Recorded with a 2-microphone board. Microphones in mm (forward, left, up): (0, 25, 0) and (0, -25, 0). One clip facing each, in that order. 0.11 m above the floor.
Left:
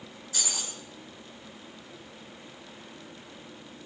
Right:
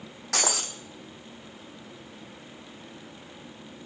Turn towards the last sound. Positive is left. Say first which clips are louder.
# right 9 dB
turn(degrees=-75)  # may be behind; listen again after turning